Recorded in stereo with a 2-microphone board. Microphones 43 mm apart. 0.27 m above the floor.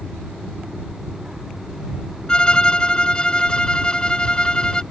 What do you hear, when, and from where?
2.3 s a violin: 20° left (ahead or behind)